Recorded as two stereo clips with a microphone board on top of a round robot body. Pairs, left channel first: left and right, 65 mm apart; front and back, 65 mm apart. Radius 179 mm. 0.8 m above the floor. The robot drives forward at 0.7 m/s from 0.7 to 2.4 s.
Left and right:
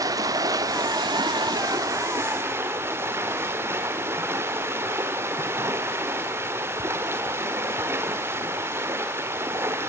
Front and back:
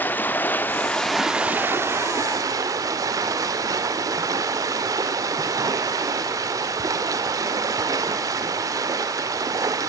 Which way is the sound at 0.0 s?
60° right.